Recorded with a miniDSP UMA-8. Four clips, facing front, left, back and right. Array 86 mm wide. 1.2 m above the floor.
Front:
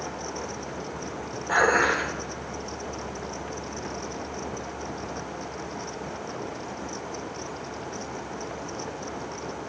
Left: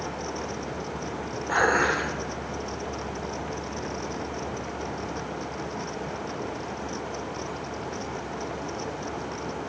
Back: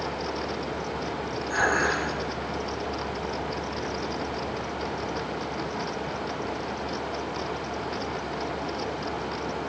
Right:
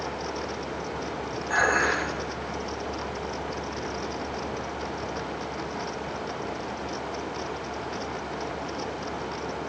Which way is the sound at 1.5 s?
35° left.